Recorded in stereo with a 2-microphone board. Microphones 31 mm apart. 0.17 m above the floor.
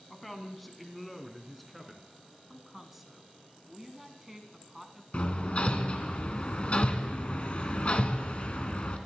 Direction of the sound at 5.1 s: 45° left (ahead or behind).